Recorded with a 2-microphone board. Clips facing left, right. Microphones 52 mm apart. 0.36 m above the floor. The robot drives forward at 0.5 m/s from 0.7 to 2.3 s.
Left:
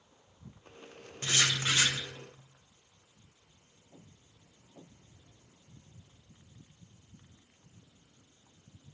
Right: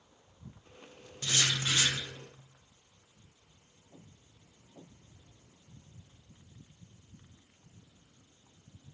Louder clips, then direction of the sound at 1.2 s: Left 2 dB; 35° left (ahead or behind).